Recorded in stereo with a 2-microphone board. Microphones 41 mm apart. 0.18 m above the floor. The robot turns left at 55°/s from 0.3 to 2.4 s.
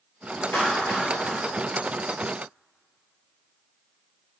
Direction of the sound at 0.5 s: 65° left (ahead or behind).